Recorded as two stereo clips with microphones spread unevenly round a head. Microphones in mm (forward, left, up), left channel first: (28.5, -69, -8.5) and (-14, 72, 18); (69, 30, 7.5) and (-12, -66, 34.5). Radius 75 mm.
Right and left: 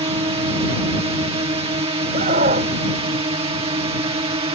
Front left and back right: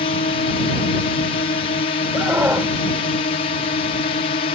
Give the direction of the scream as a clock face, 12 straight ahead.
7 o'clock.